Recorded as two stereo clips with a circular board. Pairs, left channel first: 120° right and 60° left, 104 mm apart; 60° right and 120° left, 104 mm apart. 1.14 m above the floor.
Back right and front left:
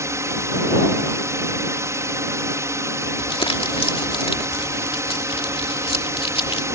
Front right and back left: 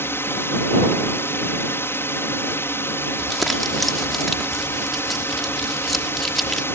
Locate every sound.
0.0 s a drone: 5° left
3.2 s crumpling: 150° right